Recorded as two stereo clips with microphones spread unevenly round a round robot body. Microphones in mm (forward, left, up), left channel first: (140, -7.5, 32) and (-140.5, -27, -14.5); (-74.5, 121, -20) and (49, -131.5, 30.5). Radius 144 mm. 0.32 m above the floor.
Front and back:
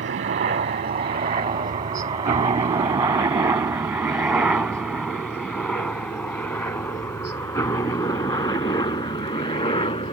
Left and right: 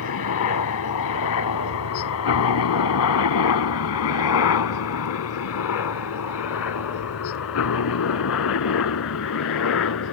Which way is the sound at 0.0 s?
130° left.